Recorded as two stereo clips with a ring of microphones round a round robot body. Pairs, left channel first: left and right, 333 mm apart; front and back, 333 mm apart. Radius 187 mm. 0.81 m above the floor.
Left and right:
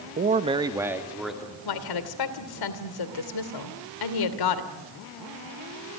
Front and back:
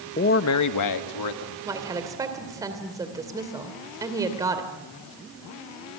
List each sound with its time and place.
0.2 s a man speaking: 45° right, 1.0 m; by 1.6 s straight ahead, 2.5 m
1.6 s a woman speaking: 100° left, 2.5 m